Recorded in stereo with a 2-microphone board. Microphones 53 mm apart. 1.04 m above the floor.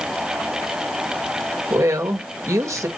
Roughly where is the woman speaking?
Right.